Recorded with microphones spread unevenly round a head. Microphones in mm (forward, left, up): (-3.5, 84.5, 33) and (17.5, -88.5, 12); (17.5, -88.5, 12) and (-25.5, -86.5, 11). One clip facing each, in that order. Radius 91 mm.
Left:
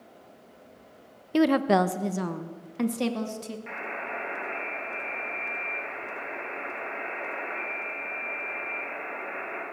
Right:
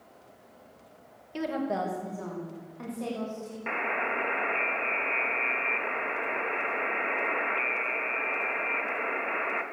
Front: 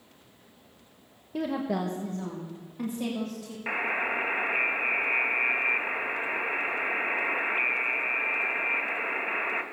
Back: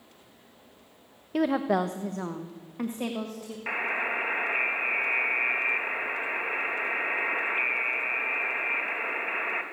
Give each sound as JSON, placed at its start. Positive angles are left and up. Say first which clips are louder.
{"t": 1.3, "sound": "a woman speaking", "louder": "left 9 dB, back 5 dB", "azimuth_deg": 115, "distance_m": 0.9}
{"t": 3.7, "sound": "a buzzer", "louder": "right 4 dB, even", "azimuth_deg": -90, "distance_m": 2.5}